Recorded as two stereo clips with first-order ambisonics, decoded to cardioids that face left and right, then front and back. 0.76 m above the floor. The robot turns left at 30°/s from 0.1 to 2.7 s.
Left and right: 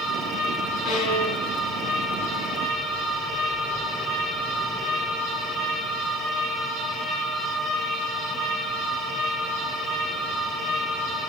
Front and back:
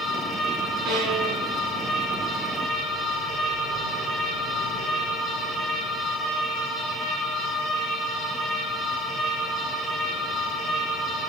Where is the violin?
125° left, 4 m; by 2.7 s 75° left, 4 m.